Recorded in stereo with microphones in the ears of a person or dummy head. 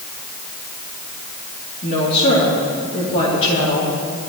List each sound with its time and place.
1.8 s a woman speaking: 40° left (ahead or behind), 3.5 m